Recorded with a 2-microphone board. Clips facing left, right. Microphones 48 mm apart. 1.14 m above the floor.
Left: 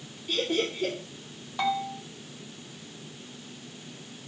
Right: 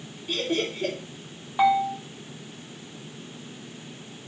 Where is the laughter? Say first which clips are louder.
Right 1 dB; 10° right (ahead or behind), 3.5 m.